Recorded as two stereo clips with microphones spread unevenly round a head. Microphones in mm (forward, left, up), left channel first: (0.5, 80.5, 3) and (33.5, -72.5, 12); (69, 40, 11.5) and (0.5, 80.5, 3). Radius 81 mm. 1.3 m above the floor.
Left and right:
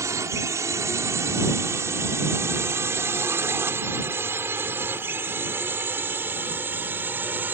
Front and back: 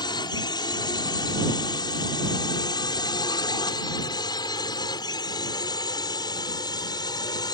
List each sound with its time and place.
0.0 s a drone: 5° right; by 7.5 s straight ahead